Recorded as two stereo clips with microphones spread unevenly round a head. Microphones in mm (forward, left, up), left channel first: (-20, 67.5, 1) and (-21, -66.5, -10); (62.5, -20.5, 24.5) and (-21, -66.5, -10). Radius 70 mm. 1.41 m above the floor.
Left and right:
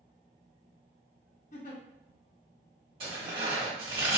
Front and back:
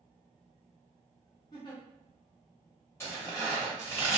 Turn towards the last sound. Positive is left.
turn(degrees=-35)